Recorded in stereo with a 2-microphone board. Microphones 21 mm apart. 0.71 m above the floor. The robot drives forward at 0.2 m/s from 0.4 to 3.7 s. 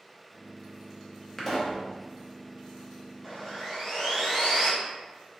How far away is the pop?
About 0.5 m.